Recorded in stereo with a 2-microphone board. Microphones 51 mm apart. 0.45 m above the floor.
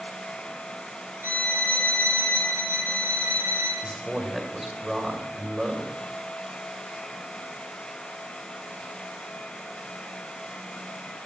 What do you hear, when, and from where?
1.2 s a violin: 65° right (ahead or behind), 2.5 m
3.8 s a man speaking: 5° right (ahead or behind), 2 m